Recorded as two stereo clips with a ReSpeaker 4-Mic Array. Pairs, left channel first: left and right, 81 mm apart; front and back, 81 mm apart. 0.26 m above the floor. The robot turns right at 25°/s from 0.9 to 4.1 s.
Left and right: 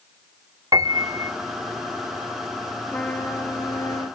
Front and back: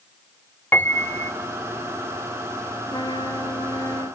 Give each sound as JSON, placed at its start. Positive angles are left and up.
{"t": 0.7, "sound": "a piano", "azimuth_deg": -60, "distance_m": 0.7}
{"t": 2.9, "sound": "a trumpet", "azimuth_deg": 15, "distance_m": 2.5}